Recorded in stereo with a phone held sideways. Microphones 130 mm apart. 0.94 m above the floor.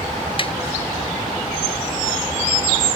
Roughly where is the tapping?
Left.